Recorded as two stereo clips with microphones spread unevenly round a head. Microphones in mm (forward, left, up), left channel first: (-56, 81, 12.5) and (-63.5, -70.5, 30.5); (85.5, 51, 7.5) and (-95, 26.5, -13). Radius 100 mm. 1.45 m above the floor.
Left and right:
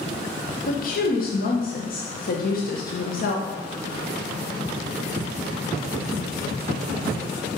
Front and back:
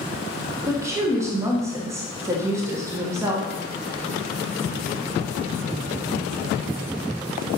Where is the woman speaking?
115° left, 1.4 m.